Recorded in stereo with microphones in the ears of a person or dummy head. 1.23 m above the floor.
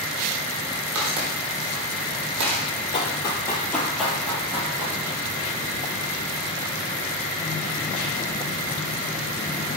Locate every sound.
0.9 s footsteps: 60° right (ahead or behind), 2.5 m; by 2.6 s 65° right (ahead or behind), 3 m
2.9 s running footsteps: 35° left (ahead or behind), 2 m; by 5.0 s 20° right (ahead or behind), 3.5 m